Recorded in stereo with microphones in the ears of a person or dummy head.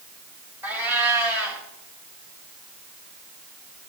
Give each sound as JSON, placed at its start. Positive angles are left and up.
{"t": 0.6, "sound": "a cat meowing", "side_deg": -10, "distance_m": 1.9}